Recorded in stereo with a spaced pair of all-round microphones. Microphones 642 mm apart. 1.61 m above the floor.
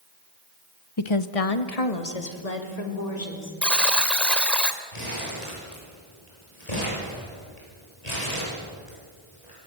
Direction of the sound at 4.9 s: 80° left.